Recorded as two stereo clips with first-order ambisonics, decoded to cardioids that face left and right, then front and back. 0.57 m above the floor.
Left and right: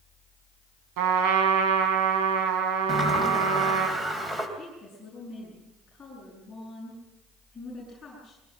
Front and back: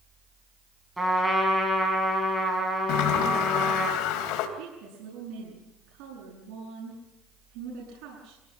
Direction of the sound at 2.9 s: 15° right.